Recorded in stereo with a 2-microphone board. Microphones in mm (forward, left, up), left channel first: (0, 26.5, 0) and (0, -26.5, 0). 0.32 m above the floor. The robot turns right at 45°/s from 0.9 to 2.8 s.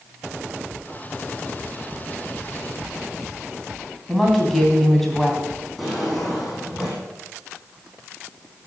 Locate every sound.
4.1 s a woman speaking: 5° left (ahead or behind), 3 m
5.8 s a drawer: centre (ahead or behind), 7 m